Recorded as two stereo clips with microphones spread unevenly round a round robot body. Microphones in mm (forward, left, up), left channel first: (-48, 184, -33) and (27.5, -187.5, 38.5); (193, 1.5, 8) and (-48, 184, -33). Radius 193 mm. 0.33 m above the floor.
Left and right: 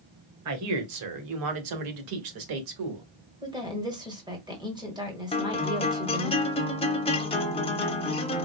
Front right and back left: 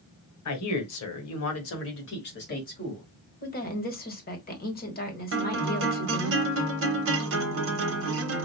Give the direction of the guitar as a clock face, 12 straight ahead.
7 o'clock.